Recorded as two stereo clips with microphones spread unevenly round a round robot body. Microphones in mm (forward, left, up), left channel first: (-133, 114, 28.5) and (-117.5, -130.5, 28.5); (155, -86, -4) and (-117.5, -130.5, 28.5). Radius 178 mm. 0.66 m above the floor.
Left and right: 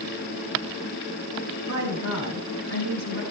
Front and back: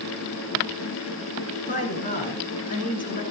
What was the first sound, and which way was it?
A woman speaking, 50° right.